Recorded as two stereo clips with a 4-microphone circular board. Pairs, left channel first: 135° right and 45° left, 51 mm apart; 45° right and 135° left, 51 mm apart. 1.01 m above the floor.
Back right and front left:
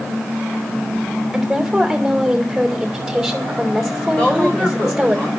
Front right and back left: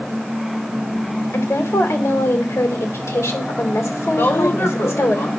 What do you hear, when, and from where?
1.3 s a woman speaking: 40° right, 3 m
4.2 s a woman speaking: 65° right, 4.5 m